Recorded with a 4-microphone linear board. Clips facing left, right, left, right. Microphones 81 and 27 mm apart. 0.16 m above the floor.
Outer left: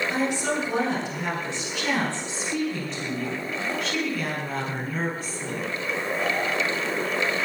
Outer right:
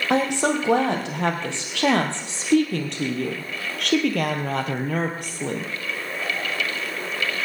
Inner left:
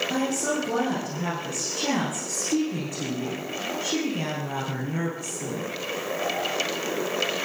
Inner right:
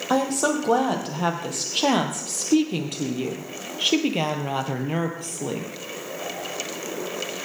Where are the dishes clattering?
No dishes clattering in this recording.